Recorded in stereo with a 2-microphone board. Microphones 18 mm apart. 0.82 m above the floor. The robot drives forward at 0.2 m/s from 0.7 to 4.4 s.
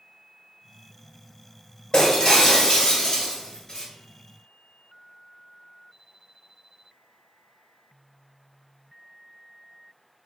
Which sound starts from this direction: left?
Breaking glass, at 1.9 s.